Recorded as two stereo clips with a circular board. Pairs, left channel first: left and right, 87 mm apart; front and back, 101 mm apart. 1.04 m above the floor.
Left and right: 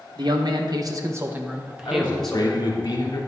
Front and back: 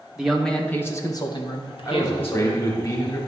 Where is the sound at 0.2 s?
95° right, 1.1 m; by 2.7 s 10° left, 1.7 m.